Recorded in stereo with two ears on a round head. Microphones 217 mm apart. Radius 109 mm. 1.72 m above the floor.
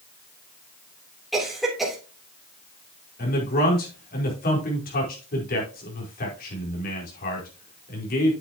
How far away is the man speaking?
About 5 m.